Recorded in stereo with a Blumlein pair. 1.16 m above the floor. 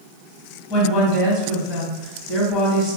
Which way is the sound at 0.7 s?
30° left.